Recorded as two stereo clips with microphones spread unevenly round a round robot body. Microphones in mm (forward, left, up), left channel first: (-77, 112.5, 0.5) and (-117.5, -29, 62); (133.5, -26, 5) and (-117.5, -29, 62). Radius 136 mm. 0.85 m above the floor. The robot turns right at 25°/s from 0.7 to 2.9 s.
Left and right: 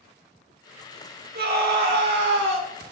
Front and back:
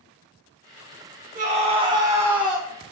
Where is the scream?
120° right, 3 m; by 2.7 s 85° right, 3 m.